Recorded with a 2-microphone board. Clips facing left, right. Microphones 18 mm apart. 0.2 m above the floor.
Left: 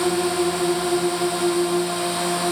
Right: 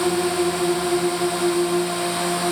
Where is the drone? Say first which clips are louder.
Even; 5° right (ahead or behind).